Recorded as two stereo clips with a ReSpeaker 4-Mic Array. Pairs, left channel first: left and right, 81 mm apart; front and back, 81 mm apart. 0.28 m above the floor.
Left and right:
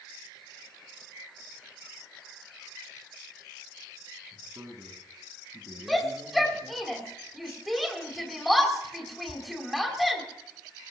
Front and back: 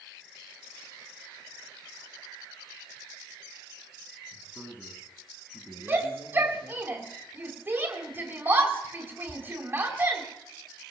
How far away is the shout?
About 1.7 m.